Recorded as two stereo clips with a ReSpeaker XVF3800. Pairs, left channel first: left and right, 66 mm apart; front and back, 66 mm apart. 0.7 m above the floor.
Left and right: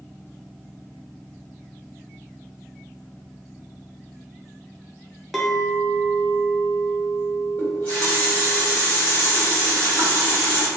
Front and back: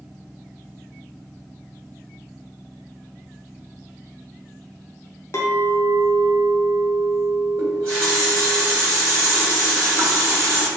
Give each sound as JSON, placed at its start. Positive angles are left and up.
{"t": 5.3, "sound": "a clink", "azimuth_deg": 0, "distance_m": 0.5}
{"t": 7.6, "sound": "a running tap", "azimuth_deg": 150, "distance_m": 1.5}